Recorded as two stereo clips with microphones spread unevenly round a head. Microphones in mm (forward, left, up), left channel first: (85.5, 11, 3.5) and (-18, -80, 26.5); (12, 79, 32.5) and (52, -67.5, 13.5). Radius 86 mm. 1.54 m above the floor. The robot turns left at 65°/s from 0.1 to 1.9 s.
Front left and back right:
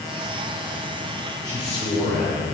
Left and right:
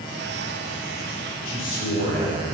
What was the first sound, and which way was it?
A man speaking, 115° left.